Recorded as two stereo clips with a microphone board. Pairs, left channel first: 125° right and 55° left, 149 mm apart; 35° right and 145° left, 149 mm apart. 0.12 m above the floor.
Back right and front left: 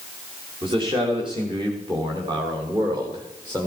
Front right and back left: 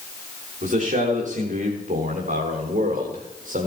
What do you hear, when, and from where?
0.6 s a man speaking: 110° left, 8 m; by 3.7 s 120° left, 6.5 m